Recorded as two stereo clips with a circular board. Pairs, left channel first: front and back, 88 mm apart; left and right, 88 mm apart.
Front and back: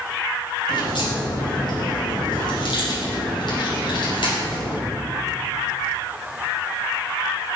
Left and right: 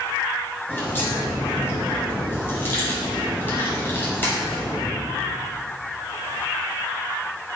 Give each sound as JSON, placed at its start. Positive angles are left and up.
{"t": 0.7, "sound": "a crack", "azimuth_deg": 25, "distance_m": 4.5}